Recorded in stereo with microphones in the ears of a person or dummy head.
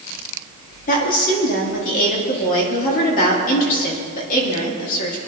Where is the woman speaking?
45° left (ahead or behind), 3 m.